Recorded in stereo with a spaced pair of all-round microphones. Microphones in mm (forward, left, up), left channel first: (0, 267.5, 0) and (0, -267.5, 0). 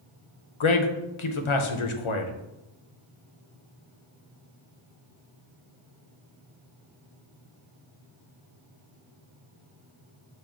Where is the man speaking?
65° left (ahead or behind), 0.6 m.